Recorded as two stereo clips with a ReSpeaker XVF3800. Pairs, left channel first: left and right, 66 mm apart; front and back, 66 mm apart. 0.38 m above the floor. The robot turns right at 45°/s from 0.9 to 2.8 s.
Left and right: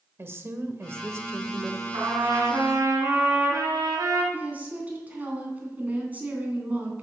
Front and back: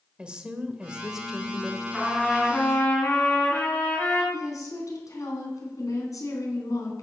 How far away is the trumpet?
About 5 m.